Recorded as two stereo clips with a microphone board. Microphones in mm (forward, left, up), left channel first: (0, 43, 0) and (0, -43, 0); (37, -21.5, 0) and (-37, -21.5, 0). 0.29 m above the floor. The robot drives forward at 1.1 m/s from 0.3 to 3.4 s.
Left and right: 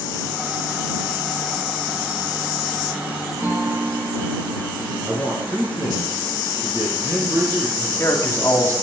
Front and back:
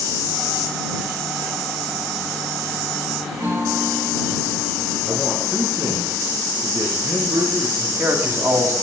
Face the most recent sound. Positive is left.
turn(degrees=140)